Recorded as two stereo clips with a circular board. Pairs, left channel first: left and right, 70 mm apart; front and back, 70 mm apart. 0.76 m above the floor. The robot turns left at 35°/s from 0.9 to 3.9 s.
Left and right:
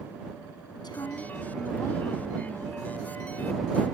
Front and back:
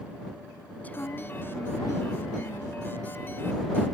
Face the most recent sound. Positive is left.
turn(degrees=-35)